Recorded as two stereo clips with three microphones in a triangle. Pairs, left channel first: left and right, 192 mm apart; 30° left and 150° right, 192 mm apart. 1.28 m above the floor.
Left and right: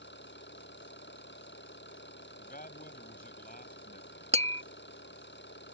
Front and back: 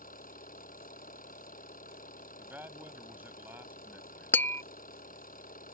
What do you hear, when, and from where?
0.0 s an engine running: 75° left
2.4 s a man speaking: 130° left
4.3 s tapping: 45° right